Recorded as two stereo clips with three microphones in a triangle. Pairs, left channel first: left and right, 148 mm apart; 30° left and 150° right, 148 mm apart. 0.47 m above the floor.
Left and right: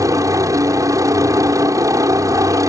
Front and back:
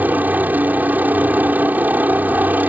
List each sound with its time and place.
0.0 s a helicopter: 90° right